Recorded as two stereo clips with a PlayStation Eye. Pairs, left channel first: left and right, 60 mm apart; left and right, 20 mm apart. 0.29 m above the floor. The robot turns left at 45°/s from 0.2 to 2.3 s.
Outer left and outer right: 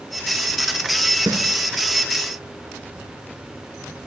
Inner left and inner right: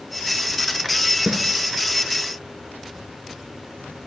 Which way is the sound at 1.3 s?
70° right (ahead or behind).